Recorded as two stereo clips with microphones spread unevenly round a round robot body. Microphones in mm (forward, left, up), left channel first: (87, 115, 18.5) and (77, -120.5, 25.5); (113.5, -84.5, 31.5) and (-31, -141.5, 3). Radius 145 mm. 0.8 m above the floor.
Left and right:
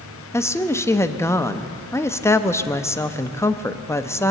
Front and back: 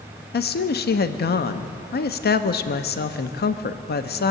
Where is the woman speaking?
10° left, 0.7 m.